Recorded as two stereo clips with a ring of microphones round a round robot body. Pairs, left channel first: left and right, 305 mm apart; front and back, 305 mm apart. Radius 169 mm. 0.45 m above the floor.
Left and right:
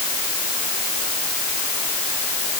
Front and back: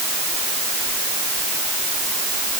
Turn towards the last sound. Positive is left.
No sound to turn to.